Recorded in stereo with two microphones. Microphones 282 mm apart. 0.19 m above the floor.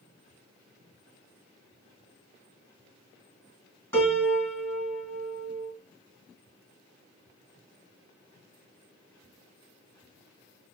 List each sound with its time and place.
3.9 s a piano: 10° left (ahead or behind), 1.7 m